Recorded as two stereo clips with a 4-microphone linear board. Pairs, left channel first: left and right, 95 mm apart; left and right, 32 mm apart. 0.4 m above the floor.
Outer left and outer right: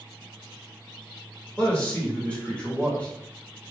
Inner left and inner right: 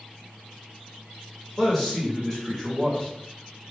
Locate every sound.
1.6 s a man speaking: 15° left (ahead or behind), 1.0 m